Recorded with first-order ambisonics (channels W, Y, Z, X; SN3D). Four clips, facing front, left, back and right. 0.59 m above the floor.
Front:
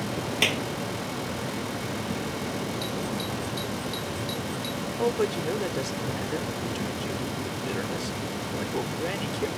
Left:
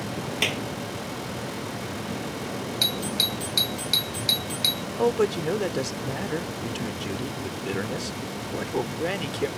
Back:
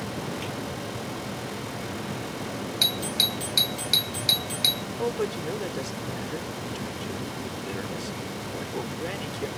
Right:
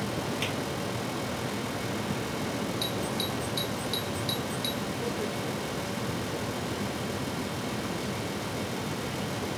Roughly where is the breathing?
No breathing in this recording.